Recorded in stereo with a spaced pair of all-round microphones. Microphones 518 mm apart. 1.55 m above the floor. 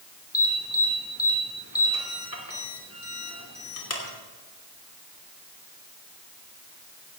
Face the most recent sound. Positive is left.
turn(degrees=30)  # may be behind; listen again after turning